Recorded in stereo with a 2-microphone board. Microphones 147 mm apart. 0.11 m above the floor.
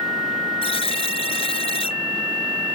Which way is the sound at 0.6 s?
45° left (ahead or behind).